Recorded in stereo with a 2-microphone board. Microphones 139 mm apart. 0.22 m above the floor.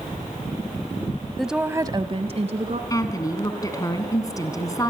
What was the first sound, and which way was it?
A woman speaking, centre (ahead or behind).